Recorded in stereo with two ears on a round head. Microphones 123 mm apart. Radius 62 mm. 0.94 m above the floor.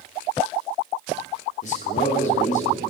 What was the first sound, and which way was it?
A man speaking, 60° left (ahead or behind).